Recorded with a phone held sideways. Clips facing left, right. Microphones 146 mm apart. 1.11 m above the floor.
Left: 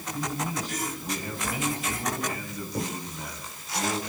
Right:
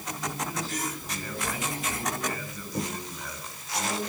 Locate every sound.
0.1 s a man speaking: 15° left (ahead or behind), 6.5 m